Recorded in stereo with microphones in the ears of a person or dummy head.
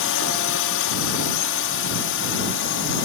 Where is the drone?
65° left (ahead or behind); by 3.1 s 60° left (ahead or behind).